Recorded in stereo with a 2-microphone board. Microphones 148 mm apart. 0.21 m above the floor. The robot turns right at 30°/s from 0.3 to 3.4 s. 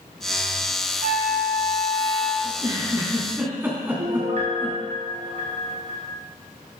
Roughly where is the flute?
Ahead right.